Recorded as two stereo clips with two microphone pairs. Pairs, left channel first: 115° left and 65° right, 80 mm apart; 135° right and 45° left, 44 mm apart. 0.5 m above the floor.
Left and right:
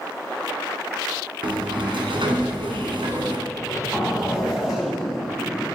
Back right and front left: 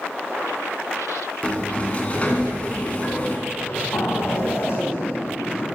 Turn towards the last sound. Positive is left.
turn(degrees=-145)